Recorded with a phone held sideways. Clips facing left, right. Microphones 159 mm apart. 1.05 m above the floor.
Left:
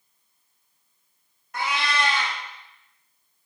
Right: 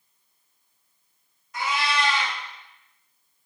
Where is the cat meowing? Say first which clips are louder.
Even; 60° left (ahead or behind), 0.7 m.